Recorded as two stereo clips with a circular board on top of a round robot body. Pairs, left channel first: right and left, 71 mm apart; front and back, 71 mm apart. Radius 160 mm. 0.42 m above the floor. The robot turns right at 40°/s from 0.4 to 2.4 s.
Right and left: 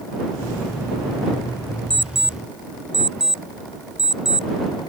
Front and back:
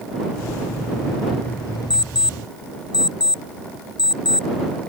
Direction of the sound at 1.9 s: 10° right.